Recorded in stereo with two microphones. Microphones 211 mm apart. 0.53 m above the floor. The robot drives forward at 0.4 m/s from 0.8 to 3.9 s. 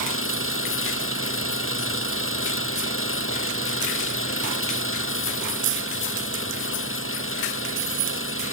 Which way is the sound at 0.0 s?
85° left.